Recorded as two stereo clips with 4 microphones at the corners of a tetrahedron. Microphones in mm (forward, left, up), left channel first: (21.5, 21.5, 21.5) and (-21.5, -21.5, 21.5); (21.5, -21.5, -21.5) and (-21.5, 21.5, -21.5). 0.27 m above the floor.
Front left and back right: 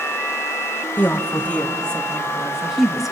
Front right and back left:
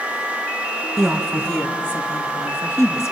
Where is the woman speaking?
50° left, 1.3 m; by 3.1 s 55° right, 1.7 m.